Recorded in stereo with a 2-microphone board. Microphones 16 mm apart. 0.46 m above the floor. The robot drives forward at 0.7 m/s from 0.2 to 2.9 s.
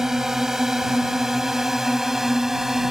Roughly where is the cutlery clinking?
I don't hear cutlery clinking.